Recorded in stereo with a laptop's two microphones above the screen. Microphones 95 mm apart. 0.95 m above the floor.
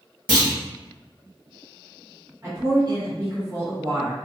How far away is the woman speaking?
About 1.3 m.